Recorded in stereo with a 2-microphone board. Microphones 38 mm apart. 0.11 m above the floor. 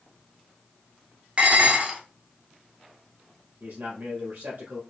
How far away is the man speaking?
About 2.5 m.